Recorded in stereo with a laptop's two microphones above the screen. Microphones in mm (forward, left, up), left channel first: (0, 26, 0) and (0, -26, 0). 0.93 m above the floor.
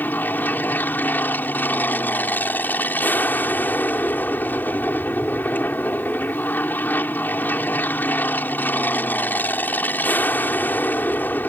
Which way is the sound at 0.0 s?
35° left (ahead or behind).